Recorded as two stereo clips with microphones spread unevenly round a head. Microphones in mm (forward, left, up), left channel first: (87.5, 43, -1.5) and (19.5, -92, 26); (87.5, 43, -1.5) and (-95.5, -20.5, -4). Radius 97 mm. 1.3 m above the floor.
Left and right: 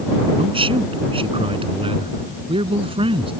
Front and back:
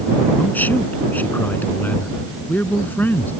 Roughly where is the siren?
No siren in this recording.